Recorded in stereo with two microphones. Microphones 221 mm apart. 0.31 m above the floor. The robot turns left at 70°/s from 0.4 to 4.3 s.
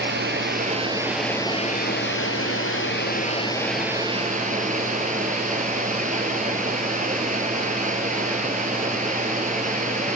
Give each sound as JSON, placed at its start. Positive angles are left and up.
{"t": 0.0, "sound": "running water", "azimuth_deg": -125, "distance_m": 1.5}